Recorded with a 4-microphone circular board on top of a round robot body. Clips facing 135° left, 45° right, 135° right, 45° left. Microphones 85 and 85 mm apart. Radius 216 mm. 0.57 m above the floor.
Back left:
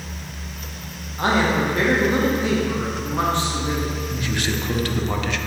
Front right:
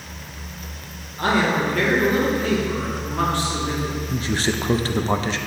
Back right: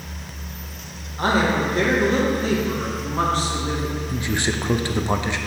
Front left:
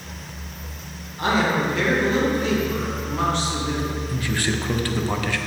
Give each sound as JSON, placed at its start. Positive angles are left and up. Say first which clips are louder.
{"t": 1.2, "sound": "a man speaking", "louder": "even, back right 1 dB", "azimuth_deg": -165, "distance_m": 1.7}
{"t": 4.1, "sound": "a man speaking", "louder": "front right 2 dB, back right 2 dB", "azimuth_deg": -75, "distance_m": 0.7}